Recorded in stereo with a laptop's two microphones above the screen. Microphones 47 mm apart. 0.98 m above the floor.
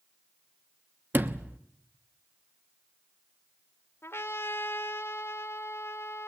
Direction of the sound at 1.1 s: 40° right (ahead or behind).